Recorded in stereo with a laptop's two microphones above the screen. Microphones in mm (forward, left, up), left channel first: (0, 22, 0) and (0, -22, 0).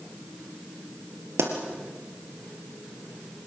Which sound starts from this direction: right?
A pop, at 1.4 s.